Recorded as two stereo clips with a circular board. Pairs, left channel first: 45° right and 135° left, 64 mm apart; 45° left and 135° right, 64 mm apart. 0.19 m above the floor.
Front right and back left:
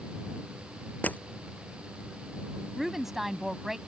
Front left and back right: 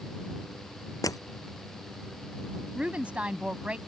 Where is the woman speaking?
150° right.